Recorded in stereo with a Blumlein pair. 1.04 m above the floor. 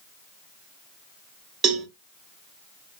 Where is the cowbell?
25° right, 0.5 m.